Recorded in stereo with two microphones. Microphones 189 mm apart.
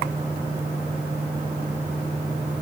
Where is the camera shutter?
No camera shutter in this recording.